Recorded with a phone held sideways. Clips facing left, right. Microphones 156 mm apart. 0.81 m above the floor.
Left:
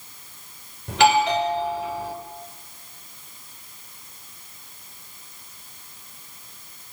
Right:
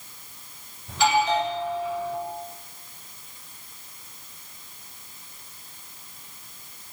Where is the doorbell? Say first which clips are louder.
Left 4 dB; 75° left (ahead or behind), 5 m.